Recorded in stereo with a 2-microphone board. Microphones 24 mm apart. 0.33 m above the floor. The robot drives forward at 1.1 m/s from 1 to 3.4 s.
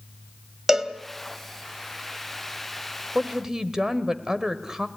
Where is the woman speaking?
20° right (ahead or behind), 1.4 m.